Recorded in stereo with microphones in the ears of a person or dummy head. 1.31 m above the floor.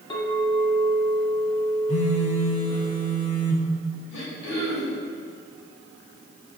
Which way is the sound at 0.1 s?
25° left (ahead or behind).